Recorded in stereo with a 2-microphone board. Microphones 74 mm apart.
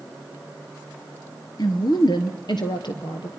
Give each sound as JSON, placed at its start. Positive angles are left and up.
{"t": 1.6, "sound": "a woman speaking", "side_deg": 60, "distance_m": 2.0}